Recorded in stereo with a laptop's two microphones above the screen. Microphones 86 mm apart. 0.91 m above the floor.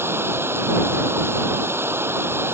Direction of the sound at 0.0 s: 30° right (ahead or behind).